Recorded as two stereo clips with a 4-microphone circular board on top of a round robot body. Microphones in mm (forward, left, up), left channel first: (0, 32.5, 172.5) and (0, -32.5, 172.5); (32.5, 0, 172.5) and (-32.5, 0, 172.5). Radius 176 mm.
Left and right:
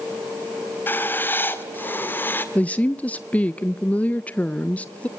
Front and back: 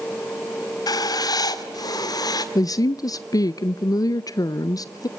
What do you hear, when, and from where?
0.9 s writing: 30° left, 1.5 m
2.5 s a woman speaking: 25° left, 0.6 m